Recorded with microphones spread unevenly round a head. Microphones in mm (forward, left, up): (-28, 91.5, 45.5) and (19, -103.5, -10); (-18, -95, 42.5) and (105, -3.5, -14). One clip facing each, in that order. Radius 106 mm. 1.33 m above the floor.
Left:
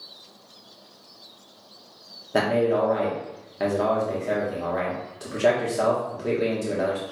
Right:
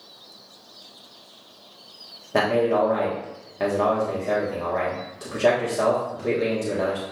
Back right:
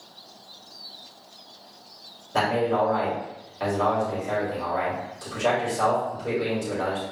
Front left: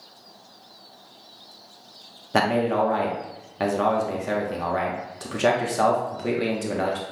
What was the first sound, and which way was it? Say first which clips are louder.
A man speaking: right 1 dB, front left 1 dB; 20° left.